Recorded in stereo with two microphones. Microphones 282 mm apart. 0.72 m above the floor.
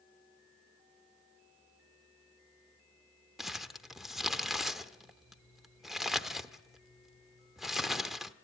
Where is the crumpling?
Centre (ahead or behind), 0.8 m.